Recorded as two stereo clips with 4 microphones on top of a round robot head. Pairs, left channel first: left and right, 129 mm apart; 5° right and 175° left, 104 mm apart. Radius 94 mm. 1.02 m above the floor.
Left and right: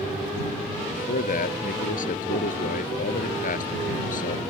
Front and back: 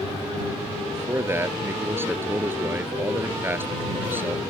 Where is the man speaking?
110° left; by 4.4 s 105° left.